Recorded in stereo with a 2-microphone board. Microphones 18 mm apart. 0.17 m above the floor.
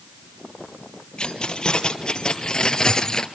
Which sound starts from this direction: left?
Keys jangling, at 1.2 s.